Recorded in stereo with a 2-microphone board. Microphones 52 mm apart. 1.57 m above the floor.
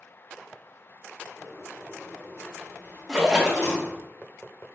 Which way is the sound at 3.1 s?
5° right (ahead or behind).